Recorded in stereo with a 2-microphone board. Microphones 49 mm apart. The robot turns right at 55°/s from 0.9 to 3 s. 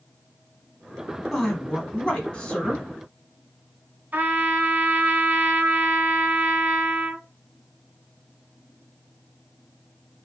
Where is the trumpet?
35° right (ahead or behind), 1.2 m.